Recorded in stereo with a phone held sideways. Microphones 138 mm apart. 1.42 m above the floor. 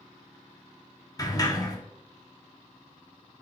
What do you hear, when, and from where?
1.2 s a sliding door: 25° left (ahead or behind), 0.7 m